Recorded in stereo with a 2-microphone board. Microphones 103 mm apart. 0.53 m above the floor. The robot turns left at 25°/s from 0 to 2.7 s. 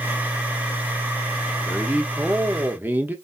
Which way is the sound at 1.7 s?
10° right (ahead or behind).